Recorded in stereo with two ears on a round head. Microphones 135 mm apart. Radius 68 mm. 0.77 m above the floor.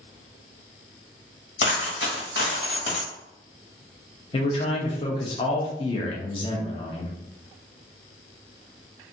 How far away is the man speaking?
About 0.6 m.